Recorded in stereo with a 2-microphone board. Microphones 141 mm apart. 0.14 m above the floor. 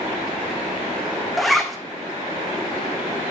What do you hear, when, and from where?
1.4 s a zipper: centre (ahead or behind), 1.2 m